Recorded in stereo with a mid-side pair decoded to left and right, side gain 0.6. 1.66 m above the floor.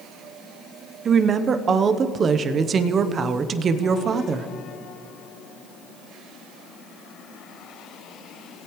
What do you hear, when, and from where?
1.1 s a woman speaking: 35° right, 0.9 m